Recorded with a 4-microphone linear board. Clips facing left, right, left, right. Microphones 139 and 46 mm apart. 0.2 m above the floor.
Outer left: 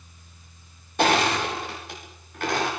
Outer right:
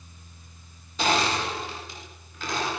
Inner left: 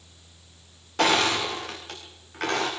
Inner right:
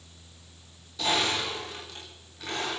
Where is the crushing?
60° left (ahead or behind), 9.5 m.